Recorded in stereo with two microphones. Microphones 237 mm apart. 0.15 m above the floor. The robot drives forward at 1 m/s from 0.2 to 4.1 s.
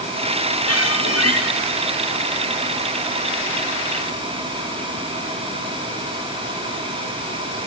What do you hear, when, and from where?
0.7 s a squeak: 85° left, 7 m